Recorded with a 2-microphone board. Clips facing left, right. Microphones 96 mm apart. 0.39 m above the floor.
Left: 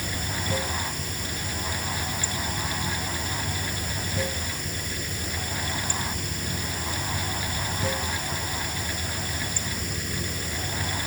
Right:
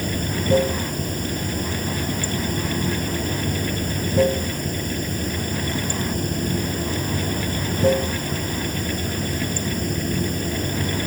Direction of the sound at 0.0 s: 45° right (ahead or behind).